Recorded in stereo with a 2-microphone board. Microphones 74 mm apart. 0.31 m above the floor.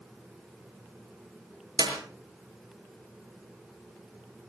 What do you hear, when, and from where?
1.8 s a clap: 80° right, 5.5 m